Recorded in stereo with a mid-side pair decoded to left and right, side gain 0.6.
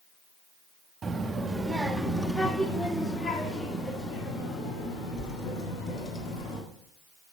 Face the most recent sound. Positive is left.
turn(degrees=55)